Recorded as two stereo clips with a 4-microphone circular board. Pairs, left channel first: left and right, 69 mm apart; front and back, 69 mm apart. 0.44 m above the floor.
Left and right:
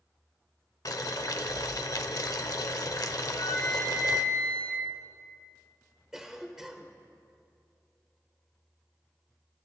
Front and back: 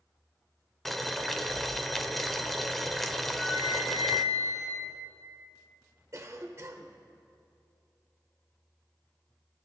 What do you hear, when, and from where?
0.8 s boiling: 85° left, 0.7 m
3.2 s a flute: 85° left, 3.5 m
6.1 s a cough: 170° right, 1.4 m